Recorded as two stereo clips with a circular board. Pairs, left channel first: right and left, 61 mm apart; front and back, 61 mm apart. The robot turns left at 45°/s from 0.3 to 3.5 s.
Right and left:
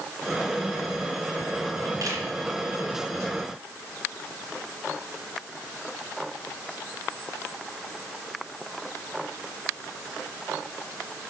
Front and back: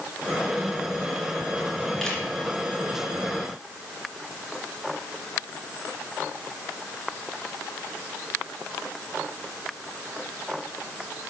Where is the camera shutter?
85° left, 2.5 m; by 2.2 s 75° left, 2.5 m.